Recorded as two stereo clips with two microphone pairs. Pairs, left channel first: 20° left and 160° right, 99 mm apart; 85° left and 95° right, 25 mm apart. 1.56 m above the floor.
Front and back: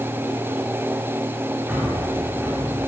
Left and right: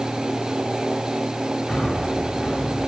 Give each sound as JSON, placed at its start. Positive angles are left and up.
{"t": 1.7, "sound": "breathing", "azimuth_deg": 125, "distance_m": 6.5}